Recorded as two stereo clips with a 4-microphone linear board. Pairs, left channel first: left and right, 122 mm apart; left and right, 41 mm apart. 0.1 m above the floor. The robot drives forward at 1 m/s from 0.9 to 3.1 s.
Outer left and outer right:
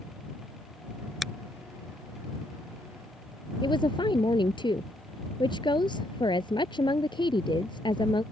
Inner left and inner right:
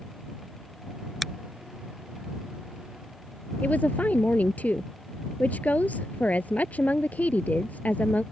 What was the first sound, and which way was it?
A finger snap, centre (ahead or behind).